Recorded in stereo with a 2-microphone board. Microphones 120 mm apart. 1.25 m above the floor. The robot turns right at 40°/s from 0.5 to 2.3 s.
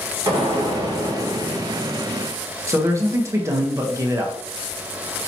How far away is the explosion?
About 1.6 m.